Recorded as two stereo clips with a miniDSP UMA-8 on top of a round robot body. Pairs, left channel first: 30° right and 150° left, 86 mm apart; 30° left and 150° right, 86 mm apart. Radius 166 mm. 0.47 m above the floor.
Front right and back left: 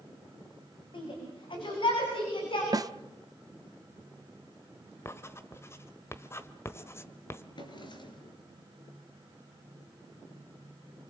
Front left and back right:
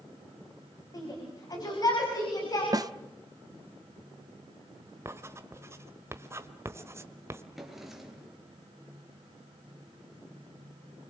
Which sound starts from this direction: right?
Writing, at 5.0 s.